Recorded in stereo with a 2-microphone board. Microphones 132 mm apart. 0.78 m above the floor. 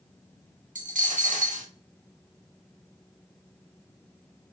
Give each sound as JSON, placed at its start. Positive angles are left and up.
{"t": 0.8, "sound": "a dropped coin", "side_deg": -75, "distance_m": 0.8}